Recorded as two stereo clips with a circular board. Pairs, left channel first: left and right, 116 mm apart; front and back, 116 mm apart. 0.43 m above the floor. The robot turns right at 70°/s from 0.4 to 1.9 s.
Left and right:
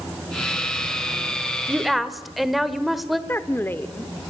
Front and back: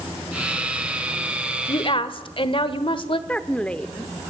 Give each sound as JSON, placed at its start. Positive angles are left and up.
{"t": 1.7, "sound": "a woman speaking", "azimuth_deg": -15, "distance_m": 1.2}
{"t": 3.3, "sound": "a woman speaking", "azimuth_deg": 60, "distance_m": 0.8}